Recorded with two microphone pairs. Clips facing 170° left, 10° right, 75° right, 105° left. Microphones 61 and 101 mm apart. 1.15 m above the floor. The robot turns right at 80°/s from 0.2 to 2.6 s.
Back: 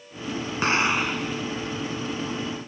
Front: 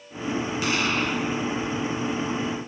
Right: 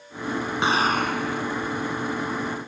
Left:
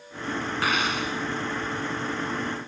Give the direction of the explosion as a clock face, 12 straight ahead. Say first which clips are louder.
Back 4 dB, right 6 dB; 5 o'clock.